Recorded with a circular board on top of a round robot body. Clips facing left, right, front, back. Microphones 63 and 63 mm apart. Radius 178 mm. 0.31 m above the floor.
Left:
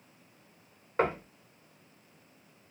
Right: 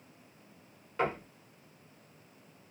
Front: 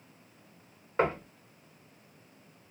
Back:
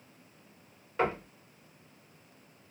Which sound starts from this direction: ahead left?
Knocking, at 1.0 s.